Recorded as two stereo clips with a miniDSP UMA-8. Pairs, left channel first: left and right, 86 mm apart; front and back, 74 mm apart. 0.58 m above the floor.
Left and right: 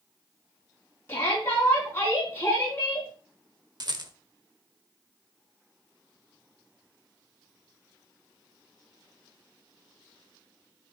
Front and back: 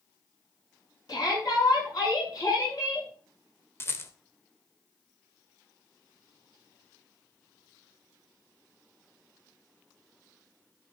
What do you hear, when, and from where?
1.1 s a shout: 30° left, 6 m
3.8 s a rattle: 55° right, 1.1 m